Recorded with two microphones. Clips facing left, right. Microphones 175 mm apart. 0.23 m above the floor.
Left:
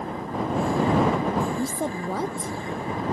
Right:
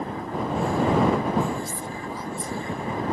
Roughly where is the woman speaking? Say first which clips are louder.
Left 5 dB; left.